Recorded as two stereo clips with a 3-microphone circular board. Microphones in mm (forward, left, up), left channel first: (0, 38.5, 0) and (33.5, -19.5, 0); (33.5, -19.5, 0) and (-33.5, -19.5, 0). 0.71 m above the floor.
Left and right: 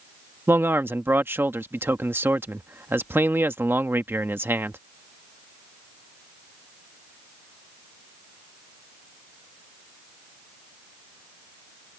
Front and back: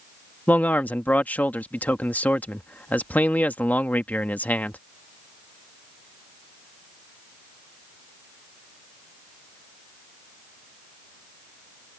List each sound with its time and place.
0.5 s a man speaking: 45° right